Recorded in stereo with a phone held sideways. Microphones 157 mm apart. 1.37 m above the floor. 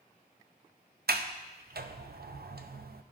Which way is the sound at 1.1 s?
80° right.